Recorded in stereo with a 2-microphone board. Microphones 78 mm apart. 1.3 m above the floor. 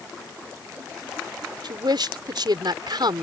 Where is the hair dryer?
I don't hear a hair dryer.